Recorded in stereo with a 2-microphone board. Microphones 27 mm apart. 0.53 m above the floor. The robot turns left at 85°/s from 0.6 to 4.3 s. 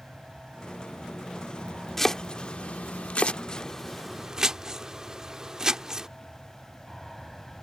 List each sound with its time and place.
0.0 s an aircraft: 40° right; by 7.6 s 5° left
2.0 s chopping: 10° left (ahead or behind); by 6.1 s 25° right (ahead or behind)